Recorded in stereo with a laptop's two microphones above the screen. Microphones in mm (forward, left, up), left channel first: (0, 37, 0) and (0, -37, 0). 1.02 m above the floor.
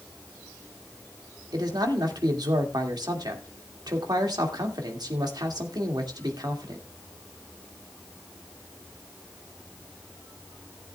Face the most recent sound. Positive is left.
turn(degrees=-70)  # may be behind; listen again after turning